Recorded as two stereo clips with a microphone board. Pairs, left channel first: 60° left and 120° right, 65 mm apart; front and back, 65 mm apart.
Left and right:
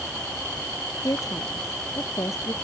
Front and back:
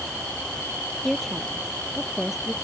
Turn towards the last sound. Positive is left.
turn(degrees=95)